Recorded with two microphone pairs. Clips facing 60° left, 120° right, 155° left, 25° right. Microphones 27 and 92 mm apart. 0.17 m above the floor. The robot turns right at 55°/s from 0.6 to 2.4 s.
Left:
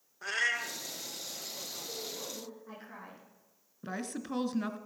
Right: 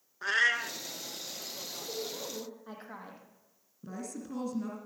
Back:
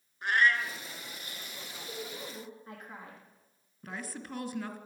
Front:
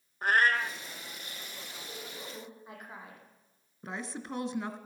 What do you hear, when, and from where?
0.2 s a cat meowing: 65° right, 1.1 m; by 0.8 s 55° right, 1.1 m
1.8 s a woman speaking: 135° right, 6 m; by 3.2 s 105° right, 6 m
3.8 s a woman speaking: 35° left, 1.8 m